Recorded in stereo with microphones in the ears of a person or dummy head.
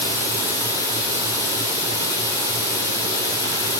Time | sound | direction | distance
0.0 | running water | 20° left (ahead or behind) | 8.5 m